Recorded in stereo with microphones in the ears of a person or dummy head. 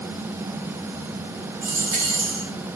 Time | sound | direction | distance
1.6 | a dropped coin | 45° right (ahead or behind) | 1.4 m